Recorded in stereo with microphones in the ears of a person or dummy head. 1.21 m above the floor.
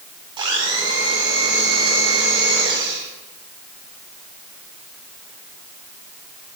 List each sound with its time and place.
0.4 s a blender: 25° right (ahead or behind), 4 m